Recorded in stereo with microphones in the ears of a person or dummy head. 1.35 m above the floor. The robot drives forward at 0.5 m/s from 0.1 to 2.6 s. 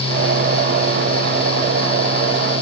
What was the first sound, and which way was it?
Only background noise.